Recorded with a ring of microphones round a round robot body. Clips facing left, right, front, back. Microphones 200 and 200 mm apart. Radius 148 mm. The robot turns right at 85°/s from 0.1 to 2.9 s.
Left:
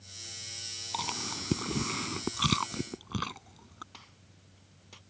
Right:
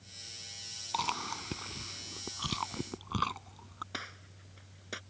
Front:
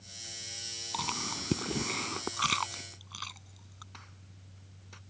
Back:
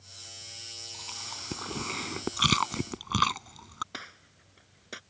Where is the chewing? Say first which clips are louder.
Even, front 12 dB; 5° left; by 3.8 s 170° left.